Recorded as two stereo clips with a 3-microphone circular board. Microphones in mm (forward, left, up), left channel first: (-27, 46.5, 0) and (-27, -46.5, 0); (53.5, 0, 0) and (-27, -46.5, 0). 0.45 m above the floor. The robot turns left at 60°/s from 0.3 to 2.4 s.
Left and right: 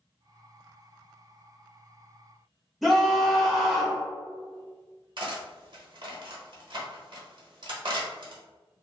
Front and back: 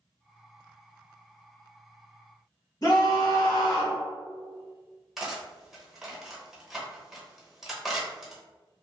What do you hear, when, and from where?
2.8 s a scream: straight ahead, 1.3 m
5.2 s cutlery clinking: 65° right, 0.9 m